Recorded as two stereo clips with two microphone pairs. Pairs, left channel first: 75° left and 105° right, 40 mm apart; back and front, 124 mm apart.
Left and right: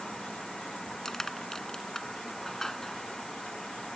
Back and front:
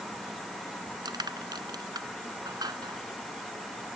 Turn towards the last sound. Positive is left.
turn(degrees=10)